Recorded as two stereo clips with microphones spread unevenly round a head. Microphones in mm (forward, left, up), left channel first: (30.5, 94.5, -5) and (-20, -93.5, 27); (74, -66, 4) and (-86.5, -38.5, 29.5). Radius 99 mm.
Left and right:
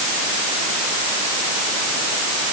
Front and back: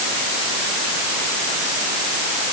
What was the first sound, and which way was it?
Only background noise.